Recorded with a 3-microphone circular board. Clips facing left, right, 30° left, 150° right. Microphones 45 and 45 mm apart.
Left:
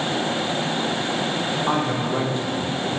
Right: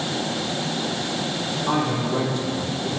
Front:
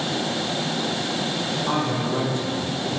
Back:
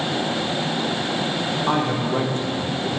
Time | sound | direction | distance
1.7 | a man speaking | 155° left | 1.1 m